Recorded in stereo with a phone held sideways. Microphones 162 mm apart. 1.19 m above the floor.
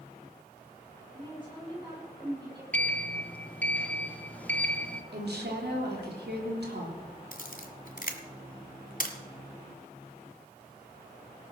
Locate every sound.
1.1 s a woman speaking: 30° right (ahead or behind), 8.5 m; by 2.6 s 25° right (ahead or behind), 9.5 m
2.7 s a sliding door: 10° left (ahead or behind), 1.2 m
5.1 s a woman speaking: 80° right, 3.5 m
7.3 s a camera shutter: 55° left (ahead or behind), 1.7 m